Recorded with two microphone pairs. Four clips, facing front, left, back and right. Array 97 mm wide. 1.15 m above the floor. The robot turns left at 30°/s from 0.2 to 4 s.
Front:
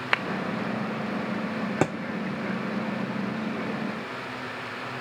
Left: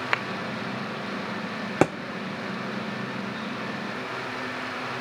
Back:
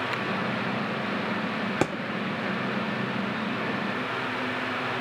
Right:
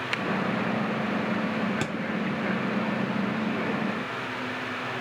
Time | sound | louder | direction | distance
0.1 | a clap | left 5 dB, front 4 dB | 35° left | 0.9 m
1.8 | a thud | left 10 dB, front 2 dB | 85° left | 1.2 m